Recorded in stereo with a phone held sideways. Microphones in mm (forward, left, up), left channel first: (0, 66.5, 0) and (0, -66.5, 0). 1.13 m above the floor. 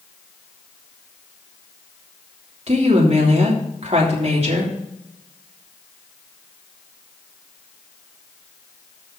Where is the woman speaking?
55° right (ahead or behind), 3 m.